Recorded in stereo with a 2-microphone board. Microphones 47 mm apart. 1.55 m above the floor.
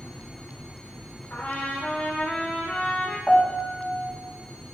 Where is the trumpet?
40° left (ahead or behind), 3 m.